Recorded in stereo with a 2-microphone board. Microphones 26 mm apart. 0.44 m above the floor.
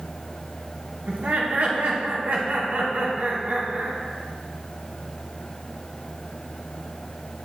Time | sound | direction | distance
1.1 | laughter | 65° right (ahead or behind) | 3 m